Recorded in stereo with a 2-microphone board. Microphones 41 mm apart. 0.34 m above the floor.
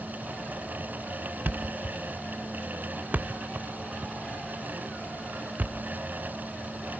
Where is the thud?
45° right (ahead or behind), 0.5 m.